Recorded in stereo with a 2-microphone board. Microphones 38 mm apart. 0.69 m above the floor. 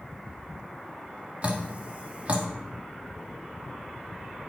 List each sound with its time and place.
1.4 s dripping: 40° right (ahead or behind), 1.3 m